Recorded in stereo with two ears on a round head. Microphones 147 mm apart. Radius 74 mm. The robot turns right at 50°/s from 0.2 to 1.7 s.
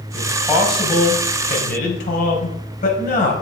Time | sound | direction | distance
0.1 | a man speaking | 20° right | 4.5 m